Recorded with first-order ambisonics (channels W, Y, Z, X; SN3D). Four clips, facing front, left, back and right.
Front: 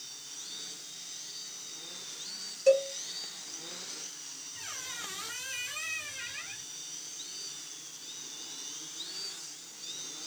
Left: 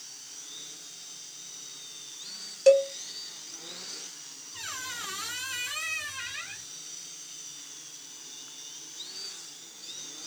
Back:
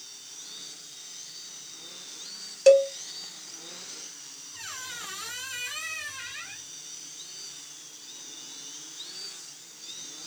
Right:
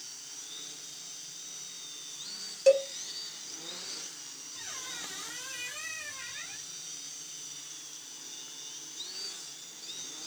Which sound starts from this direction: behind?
A cowbell, at 2.7 s.